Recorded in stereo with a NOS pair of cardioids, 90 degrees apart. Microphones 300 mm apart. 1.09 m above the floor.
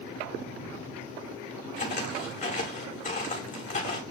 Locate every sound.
1.8 s footsteps: 25° left, 5.5 m